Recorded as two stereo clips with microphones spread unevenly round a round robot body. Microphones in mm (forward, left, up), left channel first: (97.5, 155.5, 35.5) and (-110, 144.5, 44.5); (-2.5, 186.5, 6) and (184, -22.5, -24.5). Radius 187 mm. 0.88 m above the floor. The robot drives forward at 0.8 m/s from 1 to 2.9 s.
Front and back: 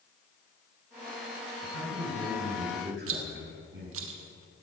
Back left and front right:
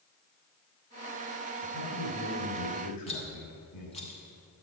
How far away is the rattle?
About 0.9 m.